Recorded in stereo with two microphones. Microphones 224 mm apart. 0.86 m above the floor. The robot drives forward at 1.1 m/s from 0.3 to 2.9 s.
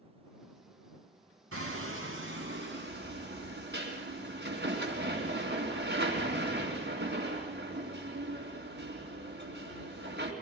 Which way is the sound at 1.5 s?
70° right (ahead or behind).